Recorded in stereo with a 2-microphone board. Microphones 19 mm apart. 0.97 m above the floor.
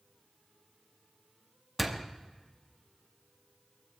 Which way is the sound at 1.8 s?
5° right (ahead or behind).